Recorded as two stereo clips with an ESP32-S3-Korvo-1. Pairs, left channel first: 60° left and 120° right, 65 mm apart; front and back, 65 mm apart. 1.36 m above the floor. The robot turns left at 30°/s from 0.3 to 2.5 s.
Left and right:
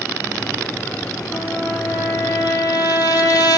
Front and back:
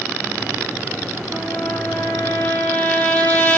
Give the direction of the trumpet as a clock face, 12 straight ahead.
9 o'clock.